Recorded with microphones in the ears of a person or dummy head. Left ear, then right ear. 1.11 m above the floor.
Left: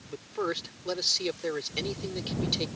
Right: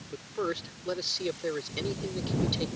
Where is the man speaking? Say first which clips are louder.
Left 1 dB; 30° left (ahead or behind).